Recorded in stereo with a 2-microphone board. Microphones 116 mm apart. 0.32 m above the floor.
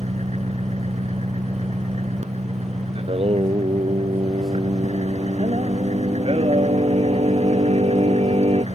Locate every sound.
0.0 s an engine running: 70° right (ahead or behind)
3.0 s singing: 60° right (ahead or behind)